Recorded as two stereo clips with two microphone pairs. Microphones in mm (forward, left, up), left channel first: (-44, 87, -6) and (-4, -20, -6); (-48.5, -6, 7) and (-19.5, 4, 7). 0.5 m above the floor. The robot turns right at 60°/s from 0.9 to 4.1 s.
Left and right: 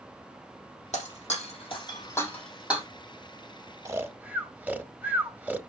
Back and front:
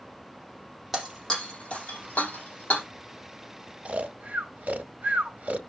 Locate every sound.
0.9 s breaking glass: 105° left, 5 m; by 2.9 s 140° right, 5 m
3.9 s snoring: 10° right, 0.9 m; by 5.6 s 5° left, 0.9 m